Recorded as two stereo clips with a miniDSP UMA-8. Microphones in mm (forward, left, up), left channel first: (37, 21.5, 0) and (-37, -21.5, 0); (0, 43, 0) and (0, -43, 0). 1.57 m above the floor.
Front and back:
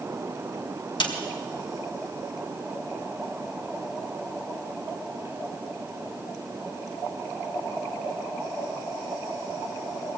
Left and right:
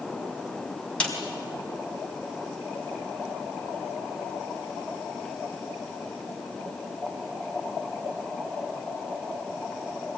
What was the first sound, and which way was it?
A snare drum, 15° left.